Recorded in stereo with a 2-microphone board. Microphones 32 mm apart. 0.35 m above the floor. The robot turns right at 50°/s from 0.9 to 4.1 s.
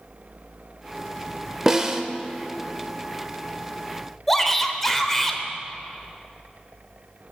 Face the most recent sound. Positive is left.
turn(degrees=10)  # may be behind; listen again after turning